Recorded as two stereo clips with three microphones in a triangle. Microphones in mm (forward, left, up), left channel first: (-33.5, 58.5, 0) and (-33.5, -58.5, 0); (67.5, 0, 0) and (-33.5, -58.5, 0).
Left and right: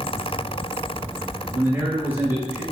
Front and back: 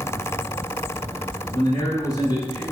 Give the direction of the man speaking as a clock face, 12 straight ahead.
1 o'clock.